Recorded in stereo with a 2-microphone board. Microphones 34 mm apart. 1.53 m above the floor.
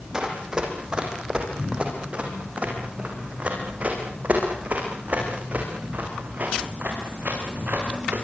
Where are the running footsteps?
20° right (ahead or behind), 5.5 m; by 8.2 s 60° right (ahead or behind), 10 m.